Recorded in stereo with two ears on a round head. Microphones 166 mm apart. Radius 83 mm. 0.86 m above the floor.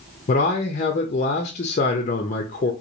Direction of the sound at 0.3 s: 40° left (ahead or behind).